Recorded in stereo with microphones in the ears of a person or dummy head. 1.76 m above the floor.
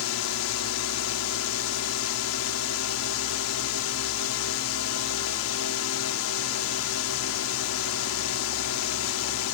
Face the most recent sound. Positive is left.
turn(degrees=75)  # may be behind; listen again after turning